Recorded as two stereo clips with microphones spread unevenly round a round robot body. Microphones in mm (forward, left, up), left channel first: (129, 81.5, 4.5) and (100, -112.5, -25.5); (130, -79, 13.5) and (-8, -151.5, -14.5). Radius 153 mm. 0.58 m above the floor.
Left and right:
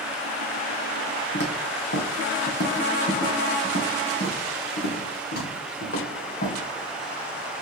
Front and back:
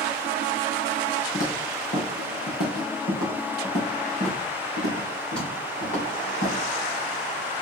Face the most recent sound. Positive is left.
turn(degrees=50)